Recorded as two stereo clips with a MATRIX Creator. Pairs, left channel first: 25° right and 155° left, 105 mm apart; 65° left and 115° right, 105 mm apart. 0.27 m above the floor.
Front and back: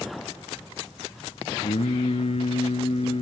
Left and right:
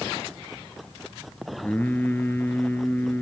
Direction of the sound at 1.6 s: 5° right.